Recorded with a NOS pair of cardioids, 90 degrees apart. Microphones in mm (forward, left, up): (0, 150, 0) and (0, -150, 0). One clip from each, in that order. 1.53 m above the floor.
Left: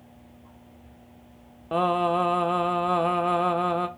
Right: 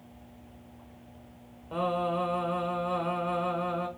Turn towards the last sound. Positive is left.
turn(degrees=45)